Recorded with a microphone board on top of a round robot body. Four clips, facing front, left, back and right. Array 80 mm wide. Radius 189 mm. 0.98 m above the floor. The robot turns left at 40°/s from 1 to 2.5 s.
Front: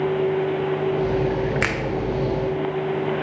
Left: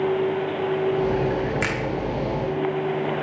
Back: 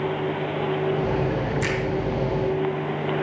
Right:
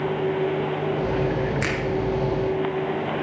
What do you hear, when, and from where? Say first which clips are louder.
1.6 s a finger snap: even, front 1 dB; 5° left, 0.8 m; by 1.8 s 5° right, 0.8 m